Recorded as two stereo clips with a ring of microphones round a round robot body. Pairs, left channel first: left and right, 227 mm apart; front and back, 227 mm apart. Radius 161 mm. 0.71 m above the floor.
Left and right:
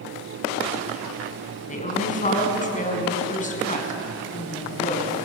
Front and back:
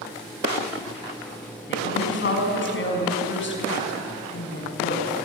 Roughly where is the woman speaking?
Ahead left.